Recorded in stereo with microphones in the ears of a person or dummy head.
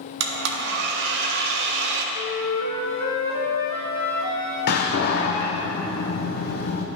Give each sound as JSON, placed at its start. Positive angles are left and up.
{"t": 0.2, "sound": "a blender", "side_deg": -65, "distance_m": 0.9}
{"t": 2.1, "sound": "a flute", "side_deg": 50, "distance_m": 1.0}
{"t": 4.7, "sound": "a door slam", "side_deg": 45, "distance_m": 0.7}